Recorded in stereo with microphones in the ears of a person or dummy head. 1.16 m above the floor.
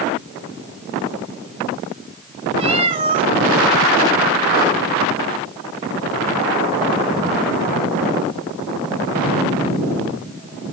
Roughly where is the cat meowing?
Right.